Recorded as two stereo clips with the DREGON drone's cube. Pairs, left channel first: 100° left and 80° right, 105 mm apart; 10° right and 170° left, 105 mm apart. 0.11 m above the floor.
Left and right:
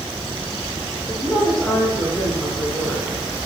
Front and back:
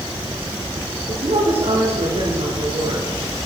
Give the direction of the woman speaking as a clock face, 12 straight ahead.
6 o'clock.